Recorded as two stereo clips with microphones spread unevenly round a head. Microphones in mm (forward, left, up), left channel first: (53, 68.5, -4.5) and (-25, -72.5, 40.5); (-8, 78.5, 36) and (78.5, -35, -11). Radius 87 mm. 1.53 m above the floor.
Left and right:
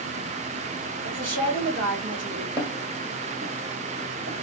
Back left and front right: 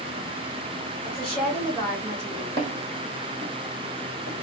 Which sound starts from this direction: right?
Footsteps, at 2.6 s.